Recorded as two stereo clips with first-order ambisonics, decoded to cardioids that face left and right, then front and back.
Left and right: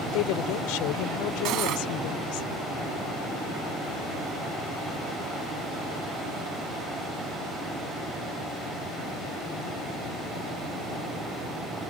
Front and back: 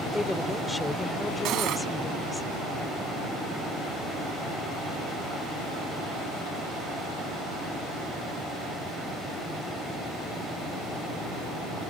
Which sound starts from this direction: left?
A woman speaking, at 0.1 s.